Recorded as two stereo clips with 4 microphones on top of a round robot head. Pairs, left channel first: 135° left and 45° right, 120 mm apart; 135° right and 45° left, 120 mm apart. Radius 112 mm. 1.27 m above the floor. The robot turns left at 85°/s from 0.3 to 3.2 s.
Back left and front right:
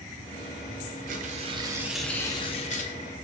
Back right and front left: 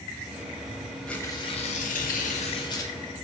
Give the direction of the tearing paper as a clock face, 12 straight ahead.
2 o'clock.